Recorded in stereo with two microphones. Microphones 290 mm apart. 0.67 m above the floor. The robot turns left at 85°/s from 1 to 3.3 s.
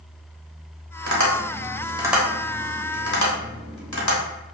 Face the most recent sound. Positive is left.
turn(degrees=75)  # may be behind; listen again after turning